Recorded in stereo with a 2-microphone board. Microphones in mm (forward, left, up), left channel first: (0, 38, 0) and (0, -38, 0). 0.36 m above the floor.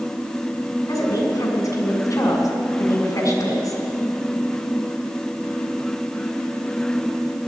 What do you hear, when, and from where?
0.9 s a woman speaking: 50° left (ahead or behind), 2.5 m